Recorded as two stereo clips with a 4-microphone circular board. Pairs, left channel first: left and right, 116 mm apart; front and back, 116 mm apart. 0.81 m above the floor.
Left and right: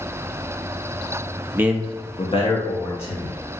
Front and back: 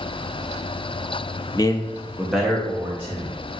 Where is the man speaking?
30° right, 0.6 m; by 3.4 s 110° left, 1.6 m.